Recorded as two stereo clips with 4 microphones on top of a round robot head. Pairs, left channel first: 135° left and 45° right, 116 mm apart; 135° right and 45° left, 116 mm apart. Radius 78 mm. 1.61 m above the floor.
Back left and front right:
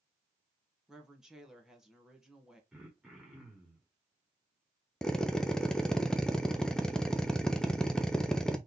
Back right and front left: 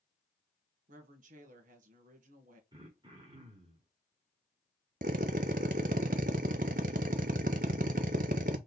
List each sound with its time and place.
0.9 s a woman speaking: 40° left, 1.3 m
2.7 s throat clearing: 35° left, 1.3 m
5.0 s a drill: 50° left, 0.5 m